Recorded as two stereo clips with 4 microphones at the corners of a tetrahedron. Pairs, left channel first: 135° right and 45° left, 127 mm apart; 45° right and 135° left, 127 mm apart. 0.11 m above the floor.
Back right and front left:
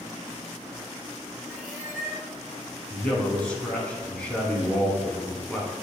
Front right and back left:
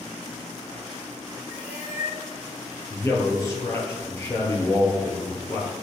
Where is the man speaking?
70° right, 1.2 m.